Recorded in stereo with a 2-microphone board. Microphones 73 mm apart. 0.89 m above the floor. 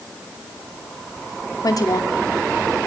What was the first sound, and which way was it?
A woman speaking, 55° left (ahead or behind).